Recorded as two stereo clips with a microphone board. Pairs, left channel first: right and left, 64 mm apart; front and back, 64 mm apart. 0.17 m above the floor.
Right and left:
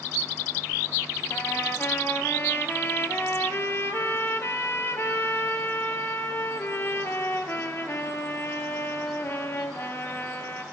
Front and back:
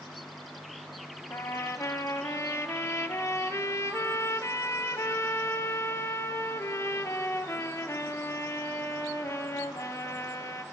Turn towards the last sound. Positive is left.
turn(degrees=-40)